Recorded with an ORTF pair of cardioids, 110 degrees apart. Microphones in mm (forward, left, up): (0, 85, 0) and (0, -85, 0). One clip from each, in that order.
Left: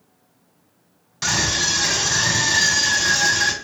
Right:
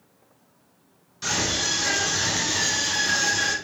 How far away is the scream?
About 1.2 m.